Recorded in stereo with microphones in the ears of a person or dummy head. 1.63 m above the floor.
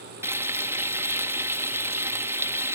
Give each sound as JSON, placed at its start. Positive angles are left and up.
{"t": 0.2, "sound": "frying", "side_deg": -15}